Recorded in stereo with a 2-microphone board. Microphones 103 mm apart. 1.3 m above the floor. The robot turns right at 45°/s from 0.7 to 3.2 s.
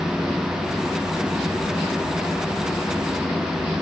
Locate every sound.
Only background noise.